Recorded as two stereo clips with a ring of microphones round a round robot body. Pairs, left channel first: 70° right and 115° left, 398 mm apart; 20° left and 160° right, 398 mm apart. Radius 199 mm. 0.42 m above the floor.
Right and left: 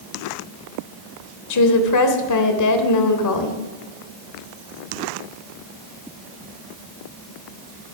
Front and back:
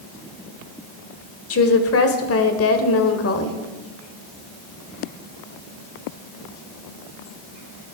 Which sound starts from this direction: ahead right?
A woman speaking, at 1.5 s.